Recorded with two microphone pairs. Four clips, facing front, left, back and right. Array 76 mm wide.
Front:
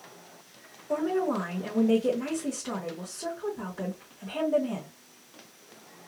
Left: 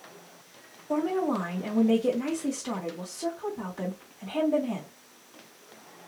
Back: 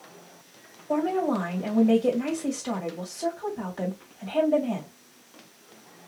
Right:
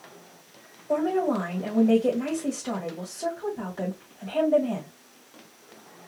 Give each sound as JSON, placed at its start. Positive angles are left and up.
{"t": 0.9, "sound": "a woman speaking", "azimuth_deg": -130, "distance_m": 1.9}